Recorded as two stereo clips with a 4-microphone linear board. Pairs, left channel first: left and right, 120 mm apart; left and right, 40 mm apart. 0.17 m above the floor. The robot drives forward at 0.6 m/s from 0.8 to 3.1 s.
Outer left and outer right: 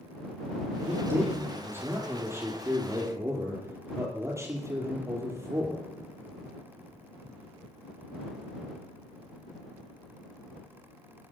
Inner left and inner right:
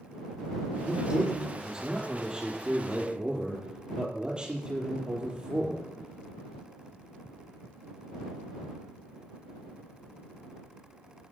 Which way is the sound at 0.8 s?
20° right (ahead or behind).